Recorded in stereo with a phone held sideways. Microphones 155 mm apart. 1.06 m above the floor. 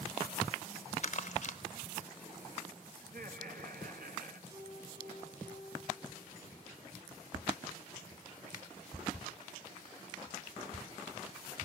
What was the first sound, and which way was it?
Crumpling, 50° left (ahead or behind).